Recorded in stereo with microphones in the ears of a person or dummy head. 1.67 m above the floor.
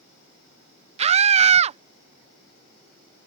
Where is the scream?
35° right (ahead or behind).